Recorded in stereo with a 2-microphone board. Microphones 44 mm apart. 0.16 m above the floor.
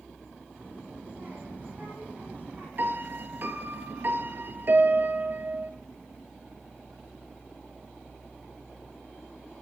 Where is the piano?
50° right (ahead or behind), 0.8 m.